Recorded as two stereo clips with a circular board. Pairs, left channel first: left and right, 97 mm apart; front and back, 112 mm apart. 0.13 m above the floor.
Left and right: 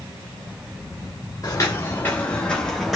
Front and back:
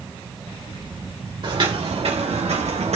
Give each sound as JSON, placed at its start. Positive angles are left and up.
{"t": 1.4, "sound": "footsteps", "azimuth_deg": 140, "distance_m": 1.3}